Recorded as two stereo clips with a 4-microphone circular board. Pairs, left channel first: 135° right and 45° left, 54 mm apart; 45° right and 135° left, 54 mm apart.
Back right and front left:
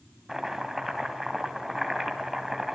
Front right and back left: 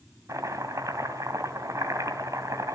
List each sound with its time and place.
0.3 s chopping: 130° left, 2.5 m